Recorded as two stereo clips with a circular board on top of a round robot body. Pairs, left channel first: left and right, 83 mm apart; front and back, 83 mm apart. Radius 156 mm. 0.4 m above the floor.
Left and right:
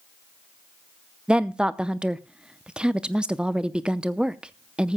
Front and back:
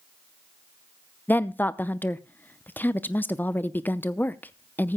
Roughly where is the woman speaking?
Ahead right.